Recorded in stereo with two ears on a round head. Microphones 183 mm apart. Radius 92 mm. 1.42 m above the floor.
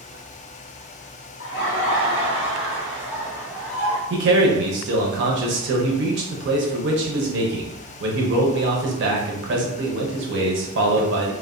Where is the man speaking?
60° right (ahead or behind), 0.7 m.